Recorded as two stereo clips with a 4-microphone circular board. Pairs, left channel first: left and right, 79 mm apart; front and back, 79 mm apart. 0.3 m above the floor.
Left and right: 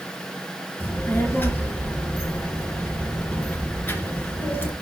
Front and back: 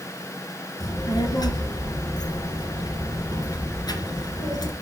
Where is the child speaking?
25° left, 2.5 m.